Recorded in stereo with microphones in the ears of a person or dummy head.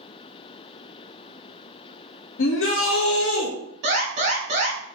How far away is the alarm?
About 1.2 m.